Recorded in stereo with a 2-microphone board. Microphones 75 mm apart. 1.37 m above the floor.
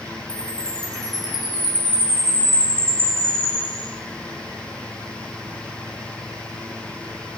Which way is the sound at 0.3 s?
60° left (ahead or behind).